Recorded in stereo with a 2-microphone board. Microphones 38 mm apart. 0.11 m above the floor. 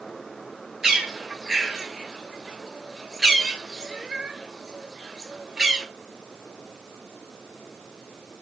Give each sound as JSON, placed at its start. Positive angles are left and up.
{"t": 0.8, "sound": "a bird", "side_deg": -15, "distance_m": 0.9}